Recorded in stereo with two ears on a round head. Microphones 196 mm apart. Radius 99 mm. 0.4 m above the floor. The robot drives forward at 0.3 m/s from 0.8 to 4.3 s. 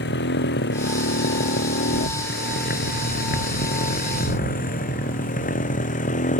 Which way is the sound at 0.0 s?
55° left (ahead or behind).